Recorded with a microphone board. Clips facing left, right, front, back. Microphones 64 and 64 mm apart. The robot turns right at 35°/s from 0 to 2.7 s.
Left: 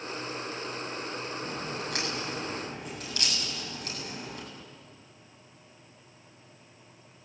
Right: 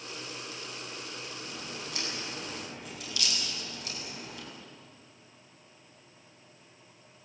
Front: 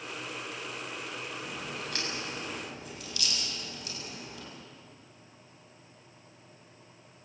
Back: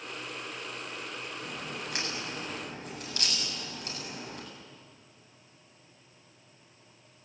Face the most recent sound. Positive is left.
turn(degrees=135)